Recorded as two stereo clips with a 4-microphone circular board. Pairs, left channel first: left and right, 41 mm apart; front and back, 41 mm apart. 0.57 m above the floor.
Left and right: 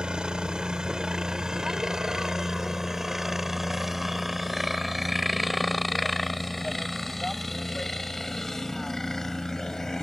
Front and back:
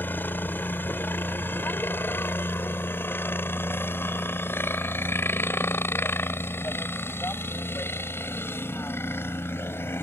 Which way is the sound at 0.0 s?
25° right.